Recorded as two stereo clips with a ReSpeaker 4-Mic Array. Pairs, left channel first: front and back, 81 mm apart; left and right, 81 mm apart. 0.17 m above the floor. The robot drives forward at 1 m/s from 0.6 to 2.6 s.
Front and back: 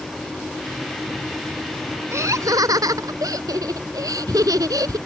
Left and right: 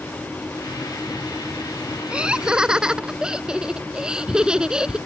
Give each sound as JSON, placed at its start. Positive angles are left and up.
{"t": 2.1, "sound": "laughter", "azimuth_deg": -160}